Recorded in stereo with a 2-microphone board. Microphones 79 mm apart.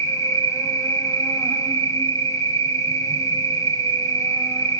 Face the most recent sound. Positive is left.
turn(degrees=50)  # may be behind; listen again after turning